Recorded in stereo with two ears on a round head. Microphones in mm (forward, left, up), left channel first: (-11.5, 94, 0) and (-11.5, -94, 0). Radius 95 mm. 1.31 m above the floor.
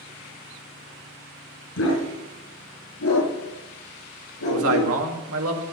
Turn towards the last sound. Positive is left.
turn(degrees=-80)